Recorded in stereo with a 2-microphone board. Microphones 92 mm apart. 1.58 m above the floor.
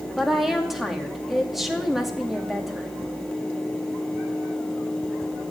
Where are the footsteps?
No footsteps in this recording.